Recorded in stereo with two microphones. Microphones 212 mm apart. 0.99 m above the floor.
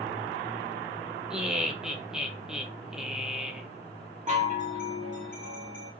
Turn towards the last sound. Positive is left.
turn(degrees=-35)  # may be behind; listen again after turning